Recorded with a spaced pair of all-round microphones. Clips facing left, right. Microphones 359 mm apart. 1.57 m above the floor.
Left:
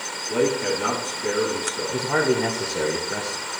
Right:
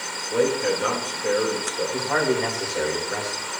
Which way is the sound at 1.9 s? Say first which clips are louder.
Left 2 dB; 45° left (ahead or behind).